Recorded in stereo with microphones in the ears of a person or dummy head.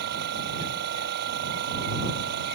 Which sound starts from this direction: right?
A machine running, at 0.0 s.